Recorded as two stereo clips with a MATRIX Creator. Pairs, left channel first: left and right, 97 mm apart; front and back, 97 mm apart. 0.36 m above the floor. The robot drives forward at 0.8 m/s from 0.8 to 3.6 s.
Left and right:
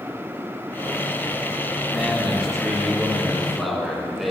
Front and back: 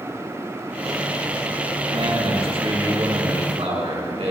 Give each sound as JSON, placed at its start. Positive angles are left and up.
{"t": 1.9, "sound": "a man speaking", "azimuth_deg": 180, "distance_m": 3.0}